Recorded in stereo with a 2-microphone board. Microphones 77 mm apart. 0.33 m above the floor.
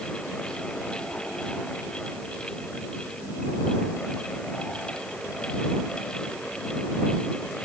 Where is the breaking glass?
I don't hear breaking glass.